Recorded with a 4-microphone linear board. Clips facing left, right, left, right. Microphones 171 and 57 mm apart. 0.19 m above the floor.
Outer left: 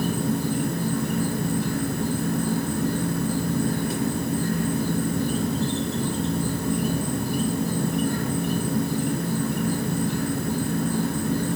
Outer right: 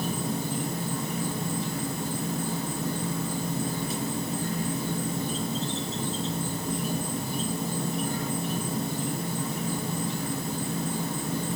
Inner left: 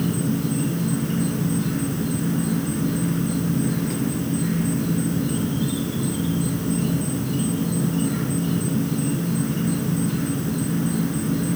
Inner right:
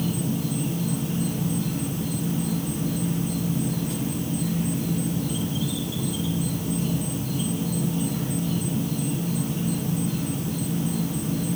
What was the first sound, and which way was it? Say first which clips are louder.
An insect: outer left 6 dB, inner left 4 dB; 65° left (ahead or behind).